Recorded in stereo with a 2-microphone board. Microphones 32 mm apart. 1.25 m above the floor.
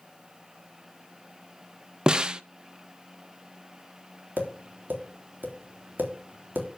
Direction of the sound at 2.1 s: 30° right (ahead or behind).